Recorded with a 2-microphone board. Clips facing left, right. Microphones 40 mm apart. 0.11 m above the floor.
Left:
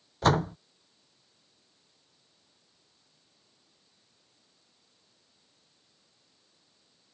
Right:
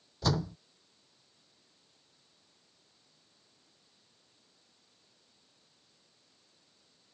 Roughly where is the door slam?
Left.